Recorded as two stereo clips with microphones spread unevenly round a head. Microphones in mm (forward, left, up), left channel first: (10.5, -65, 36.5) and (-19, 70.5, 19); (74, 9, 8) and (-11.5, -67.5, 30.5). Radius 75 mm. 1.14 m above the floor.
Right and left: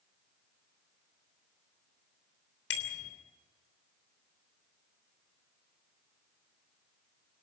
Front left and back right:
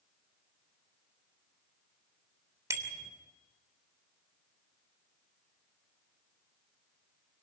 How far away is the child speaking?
I don't hear a child speaking.